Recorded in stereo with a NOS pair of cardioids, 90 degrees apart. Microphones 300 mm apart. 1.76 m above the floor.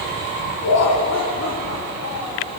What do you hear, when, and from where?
0.6 s laughter: 60° left, 3.5 m; by 2.5 s 50° left, 5 m